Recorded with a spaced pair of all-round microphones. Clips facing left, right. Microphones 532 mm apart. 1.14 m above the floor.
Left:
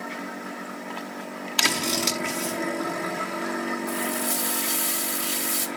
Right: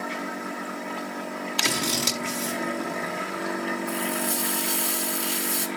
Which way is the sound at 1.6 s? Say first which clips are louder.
Left 2 dB; 35° right (ahead or behind).